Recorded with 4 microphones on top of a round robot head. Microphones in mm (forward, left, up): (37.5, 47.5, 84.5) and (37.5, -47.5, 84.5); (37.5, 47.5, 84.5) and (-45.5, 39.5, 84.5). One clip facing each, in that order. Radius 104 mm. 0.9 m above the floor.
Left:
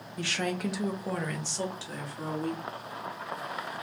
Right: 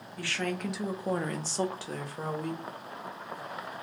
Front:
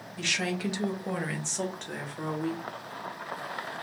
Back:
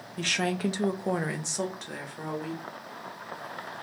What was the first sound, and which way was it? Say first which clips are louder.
A woman speaking: left 2 dB, back 3 dB; 150° left.